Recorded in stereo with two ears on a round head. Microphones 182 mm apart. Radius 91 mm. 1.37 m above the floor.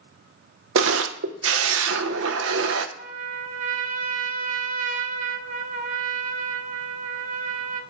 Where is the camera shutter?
75° right (ahead or behind), 0.8 m.